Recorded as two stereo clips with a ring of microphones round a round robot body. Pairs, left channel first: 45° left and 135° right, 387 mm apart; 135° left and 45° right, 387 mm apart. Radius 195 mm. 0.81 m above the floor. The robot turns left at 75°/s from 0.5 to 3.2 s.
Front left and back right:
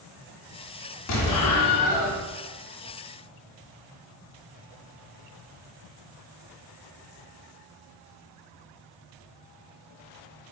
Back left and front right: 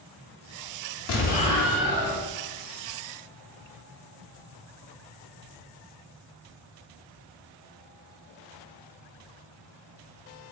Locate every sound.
1.1 s an explosion: 90° left, 0.6 m; by 2.2 s 5° left, 0.6 m